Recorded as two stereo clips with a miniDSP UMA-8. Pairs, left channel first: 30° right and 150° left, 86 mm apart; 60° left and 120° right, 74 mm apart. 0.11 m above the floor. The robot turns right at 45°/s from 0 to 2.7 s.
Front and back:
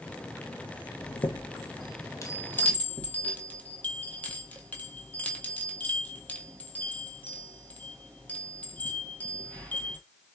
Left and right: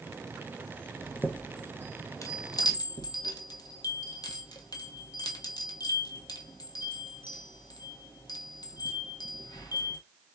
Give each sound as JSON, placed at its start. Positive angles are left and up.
{"t": 1.0, "sound": "a chime", "azimuth_deg": -35, "distance_m": 1.3}